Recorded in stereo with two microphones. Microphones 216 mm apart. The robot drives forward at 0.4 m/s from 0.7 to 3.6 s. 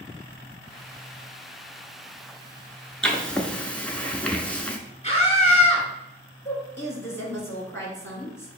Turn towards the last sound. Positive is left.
turn(degrees=10)  # may be behind; listen again after turning